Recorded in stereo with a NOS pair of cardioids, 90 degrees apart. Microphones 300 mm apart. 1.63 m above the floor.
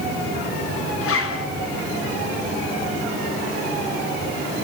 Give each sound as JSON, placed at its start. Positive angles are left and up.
{"t": 1.0, "sound": "a zipper", "azimuth_deg": 50, "distance_m": 3.5}